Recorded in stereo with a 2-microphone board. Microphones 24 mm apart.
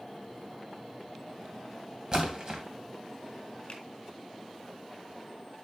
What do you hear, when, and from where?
2.1 s a splash: 40° right (ahead or behind), 2.5 m
3.7 s a finger snap: 40° left (ahead or behind), 4.5 m